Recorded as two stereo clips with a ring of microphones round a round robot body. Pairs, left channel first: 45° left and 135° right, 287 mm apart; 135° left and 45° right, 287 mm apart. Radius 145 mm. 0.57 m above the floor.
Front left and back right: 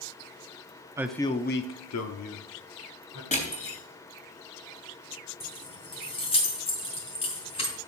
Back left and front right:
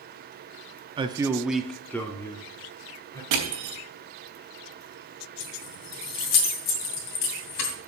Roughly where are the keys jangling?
Behind left.